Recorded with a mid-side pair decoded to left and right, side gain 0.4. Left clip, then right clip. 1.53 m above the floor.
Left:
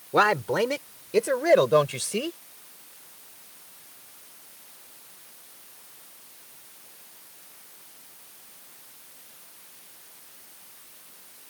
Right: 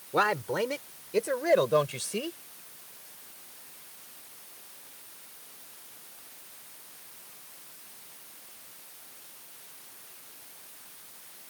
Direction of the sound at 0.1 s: 40° left.